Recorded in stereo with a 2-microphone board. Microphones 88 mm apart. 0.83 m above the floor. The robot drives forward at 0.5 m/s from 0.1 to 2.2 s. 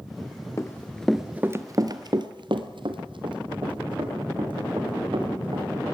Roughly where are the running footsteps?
Left.